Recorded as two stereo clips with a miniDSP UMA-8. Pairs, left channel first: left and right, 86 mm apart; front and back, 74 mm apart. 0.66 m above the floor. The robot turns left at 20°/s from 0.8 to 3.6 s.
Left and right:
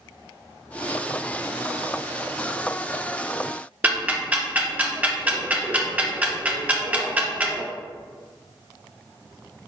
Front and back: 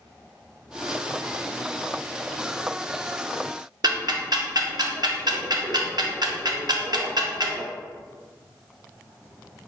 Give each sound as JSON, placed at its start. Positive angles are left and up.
{"t": 3.8, "sound": "ticking", "azimuth_deg": -160, "distance_m": 0.6}